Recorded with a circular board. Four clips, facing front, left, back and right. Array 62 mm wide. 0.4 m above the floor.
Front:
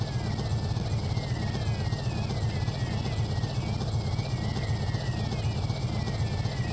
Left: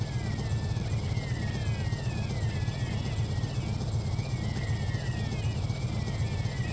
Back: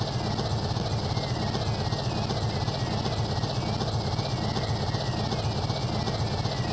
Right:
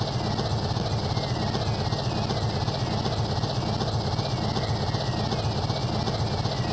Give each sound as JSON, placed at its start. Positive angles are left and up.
{"t": 0.0, "sound": "an engine running", "azimuth_deg": -115}